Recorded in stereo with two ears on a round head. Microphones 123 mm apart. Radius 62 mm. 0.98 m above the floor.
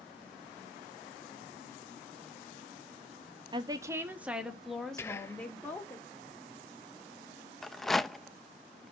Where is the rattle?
Centre (ahead or behind), 0.6 m.